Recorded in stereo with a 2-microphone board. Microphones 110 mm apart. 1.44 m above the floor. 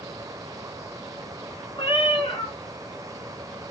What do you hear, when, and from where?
1.8 s a cat meowing: 55° left (ahead or behind), 2.5 m